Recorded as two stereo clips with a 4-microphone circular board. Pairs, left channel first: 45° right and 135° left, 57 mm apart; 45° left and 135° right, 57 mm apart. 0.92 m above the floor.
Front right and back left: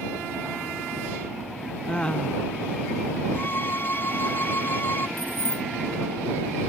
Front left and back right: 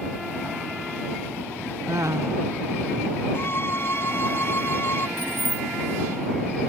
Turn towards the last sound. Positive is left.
turn(degrees=10)